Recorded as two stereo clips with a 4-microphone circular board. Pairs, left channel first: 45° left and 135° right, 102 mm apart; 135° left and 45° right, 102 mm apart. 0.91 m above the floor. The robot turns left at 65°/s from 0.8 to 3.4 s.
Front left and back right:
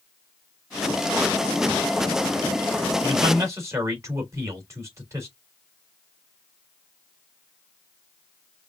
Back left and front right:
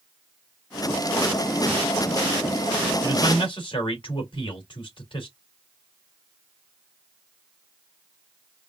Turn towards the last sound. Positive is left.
turn(degrees=165)